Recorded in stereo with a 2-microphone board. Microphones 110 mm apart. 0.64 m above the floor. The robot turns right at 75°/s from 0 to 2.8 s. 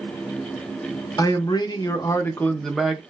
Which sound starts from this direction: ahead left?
A man speaking, at 1.2 s.